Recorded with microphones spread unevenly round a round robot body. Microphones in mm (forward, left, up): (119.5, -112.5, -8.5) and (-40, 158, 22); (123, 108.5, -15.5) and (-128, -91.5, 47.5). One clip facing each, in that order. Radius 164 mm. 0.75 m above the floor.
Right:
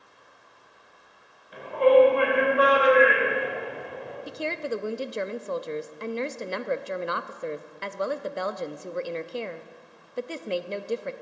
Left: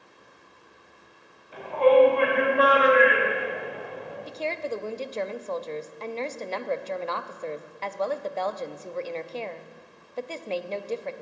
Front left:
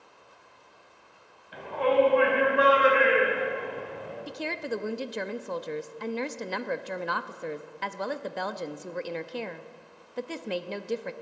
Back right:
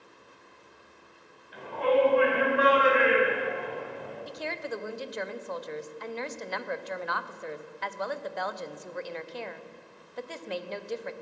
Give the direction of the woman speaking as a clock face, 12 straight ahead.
12 o'clock.